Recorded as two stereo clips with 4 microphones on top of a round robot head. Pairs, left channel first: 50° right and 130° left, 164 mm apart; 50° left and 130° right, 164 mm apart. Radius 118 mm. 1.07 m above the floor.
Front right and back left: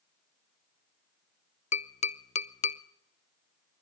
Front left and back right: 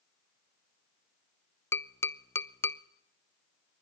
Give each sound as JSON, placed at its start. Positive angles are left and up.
{"t": 1.7, "sound": "tapping", "azimuth_deg": -20, "distance_m": 0.6}